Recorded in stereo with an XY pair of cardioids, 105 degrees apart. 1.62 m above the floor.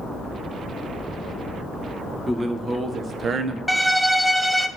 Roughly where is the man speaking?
Ahead.